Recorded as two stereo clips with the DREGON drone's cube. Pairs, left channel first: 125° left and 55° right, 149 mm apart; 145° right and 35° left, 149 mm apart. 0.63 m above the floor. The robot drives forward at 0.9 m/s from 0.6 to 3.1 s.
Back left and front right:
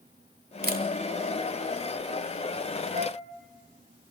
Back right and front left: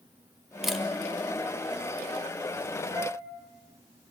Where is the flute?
30° right, 4.5 m.